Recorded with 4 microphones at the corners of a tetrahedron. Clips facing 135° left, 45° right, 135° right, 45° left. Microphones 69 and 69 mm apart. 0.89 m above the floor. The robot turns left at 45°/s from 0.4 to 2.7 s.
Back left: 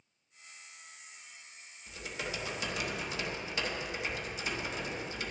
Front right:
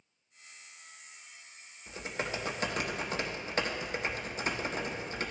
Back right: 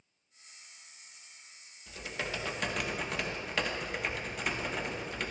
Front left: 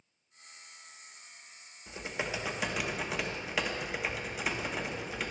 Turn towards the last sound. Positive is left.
turn(degrees=-40)